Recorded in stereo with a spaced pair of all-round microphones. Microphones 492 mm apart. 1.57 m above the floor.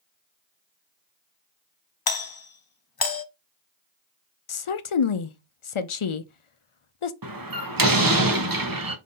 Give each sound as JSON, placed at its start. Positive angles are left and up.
{"t": 2.1, "sound": "a doorbell", "side_deg": 50, "distance_m": 0.6}
{"t": 4.5, "sound": "a woman speaking", "side_deg": 75, "distance_m": 0.6}
{"t": 7.2, "sound": "a door slam", "side_deg": -45, "distance_m": 0.9}